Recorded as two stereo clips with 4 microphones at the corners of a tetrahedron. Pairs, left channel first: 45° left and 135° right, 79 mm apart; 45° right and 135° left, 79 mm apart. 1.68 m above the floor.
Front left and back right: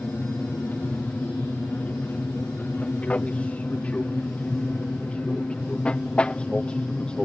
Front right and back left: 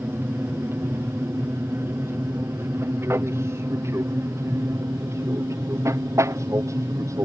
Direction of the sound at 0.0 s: 95° left.